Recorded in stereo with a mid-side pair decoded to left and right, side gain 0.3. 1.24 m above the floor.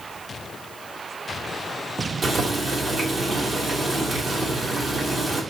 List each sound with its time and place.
2.2 s boiling: 55° right, 2.5 m